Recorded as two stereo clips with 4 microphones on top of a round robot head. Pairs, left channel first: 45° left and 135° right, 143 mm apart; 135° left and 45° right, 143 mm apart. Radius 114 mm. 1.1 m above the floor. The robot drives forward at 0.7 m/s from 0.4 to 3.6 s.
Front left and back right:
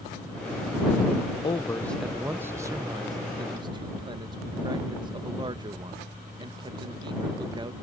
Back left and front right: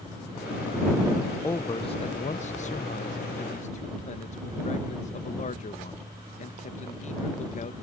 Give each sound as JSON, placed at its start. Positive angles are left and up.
{"t": 1.4, "sound": "a man speaking", "azimuth_deg": 70}